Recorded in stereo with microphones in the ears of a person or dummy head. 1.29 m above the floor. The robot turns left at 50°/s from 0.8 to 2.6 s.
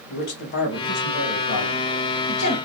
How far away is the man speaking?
About 1.7 m.